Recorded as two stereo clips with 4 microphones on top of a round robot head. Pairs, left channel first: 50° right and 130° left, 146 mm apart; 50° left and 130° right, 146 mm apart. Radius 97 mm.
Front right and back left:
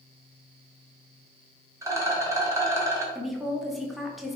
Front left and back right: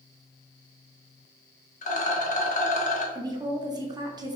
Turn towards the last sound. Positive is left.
turn(degrees=-140)